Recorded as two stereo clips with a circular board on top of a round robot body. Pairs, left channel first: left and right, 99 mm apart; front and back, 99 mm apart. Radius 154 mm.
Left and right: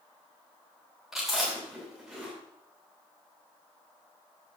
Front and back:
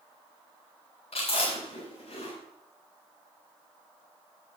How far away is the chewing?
About 9 m.